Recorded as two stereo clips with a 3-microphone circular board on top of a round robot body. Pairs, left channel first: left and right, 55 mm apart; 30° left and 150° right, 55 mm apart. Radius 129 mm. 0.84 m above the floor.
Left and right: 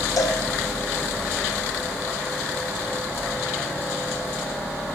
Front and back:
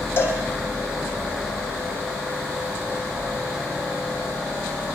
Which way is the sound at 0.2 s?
80° left.